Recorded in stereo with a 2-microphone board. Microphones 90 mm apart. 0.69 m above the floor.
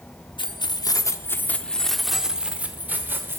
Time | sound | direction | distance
0.4 | keys jangling | 60° left (ahead or behind) | 0.8 m